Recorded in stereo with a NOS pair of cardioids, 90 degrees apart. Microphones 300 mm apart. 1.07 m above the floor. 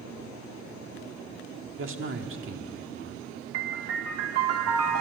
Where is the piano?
55° right, 1.4 m.